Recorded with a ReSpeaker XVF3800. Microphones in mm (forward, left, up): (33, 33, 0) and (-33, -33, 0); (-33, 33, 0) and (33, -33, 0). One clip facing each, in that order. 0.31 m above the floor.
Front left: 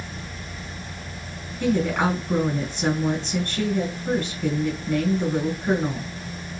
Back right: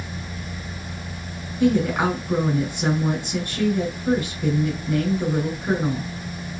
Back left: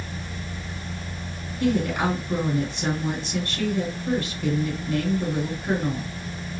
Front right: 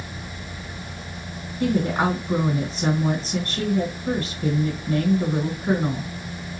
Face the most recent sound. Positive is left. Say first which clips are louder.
# back right 2 dB, front right 1 dB
turn(degrees=-65)